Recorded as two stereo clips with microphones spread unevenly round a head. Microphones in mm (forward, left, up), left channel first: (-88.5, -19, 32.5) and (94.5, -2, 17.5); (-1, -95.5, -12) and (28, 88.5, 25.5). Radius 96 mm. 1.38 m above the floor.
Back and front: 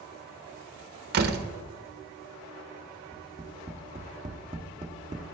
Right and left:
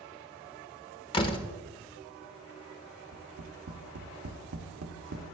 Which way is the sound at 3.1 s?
75° left.